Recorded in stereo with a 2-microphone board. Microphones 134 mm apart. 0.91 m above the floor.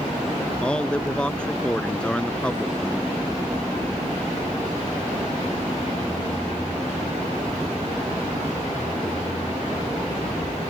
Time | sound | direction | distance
0.6 | a man speaking | 5° left (ahead or behind) | ?